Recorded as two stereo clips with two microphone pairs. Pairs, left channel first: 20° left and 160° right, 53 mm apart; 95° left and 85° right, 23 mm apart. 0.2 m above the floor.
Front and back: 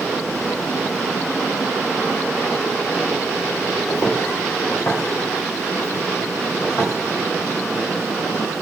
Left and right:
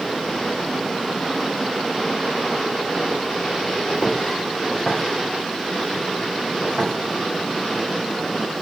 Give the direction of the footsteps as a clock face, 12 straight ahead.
11 o'clock.